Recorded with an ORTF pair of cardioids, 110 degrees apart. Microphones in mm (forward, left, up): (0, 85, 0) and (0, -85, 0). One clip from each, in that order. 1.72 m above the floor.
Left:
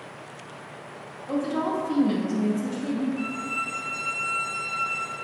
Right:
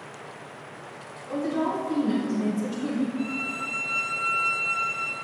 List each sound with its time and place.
1.3 s a woman speaking: 60° left, 1.0 m; by 3.1 s 20° right, 0.5 m
3.2 s a violin: 25° left, 1.2 m